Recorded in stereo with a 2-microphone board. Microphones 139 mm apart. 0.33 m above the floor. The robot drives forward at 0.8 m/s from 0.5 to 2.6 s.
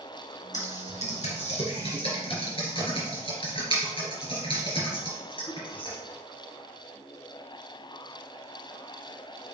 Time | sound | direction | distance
0.5 | typing on a keyboard | 70° left (ahead or behind) | 2.5 m